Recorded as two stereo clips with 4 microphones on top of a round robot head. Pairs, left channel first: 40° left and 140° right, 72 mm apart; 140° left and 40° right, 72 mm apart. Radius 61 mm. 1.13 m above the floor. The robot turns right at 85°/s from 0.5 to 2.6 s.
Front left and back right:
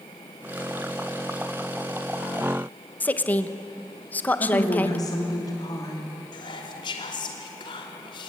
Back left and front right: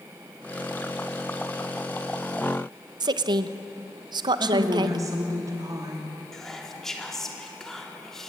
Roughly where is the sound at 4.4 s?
Ahead.